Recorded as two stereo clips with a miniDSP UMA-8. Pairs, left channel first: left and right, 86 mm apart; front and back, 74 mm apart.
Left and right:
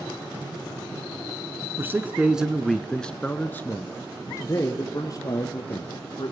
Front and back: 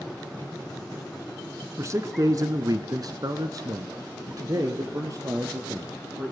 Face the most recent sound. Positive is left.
turn(degrees=130)